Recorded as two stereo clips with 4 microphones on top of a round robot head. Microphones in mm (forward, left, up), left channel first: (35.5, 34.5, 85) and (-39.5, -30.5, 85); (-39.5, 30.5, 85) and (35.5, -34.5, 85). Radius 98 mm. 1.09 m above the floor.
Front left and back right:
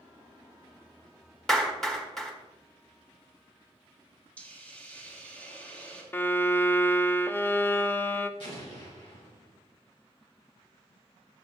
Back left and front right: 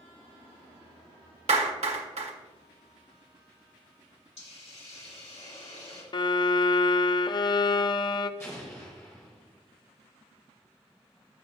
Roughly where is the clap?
Ahead right.